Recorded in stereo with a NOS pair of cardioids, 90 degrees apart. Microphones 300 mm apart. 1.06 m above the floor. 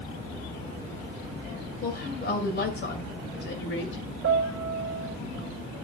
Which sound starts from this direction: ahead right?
A piano, at 4.2 s.